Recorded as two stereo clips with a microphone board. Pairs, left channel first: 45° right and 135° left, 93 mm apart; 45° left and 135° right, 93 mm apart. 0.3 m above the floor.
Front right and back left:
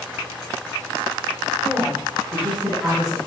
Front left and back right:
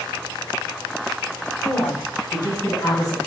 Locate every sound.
1.6 s a woman speaking: 75° left, 2 m; by 3.2 s 45° left, 1.6 m